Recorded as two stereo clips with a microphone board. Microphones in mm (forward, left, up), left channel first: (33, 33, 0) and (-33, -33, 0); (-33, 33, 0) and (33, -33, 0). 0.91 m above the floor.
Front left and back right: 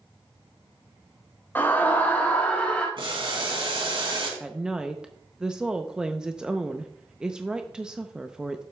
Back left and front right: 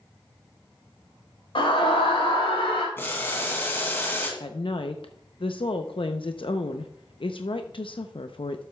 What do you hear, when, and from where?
1.6 s a scream: 115° left, 4 m; by 2.9 s 120° left, 4.5 m
3.0 s boiling: 160° right, 2.5 m
4.4 s a woman speaking: 145° left, 0.6 m